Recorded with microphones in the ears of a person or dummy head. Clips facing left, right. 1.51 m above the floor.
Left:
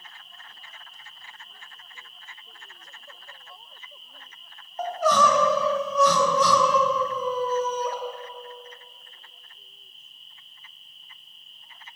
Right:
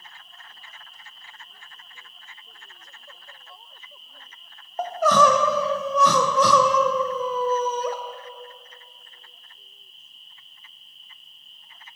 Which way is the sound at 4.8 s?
50° right (ahead or behind).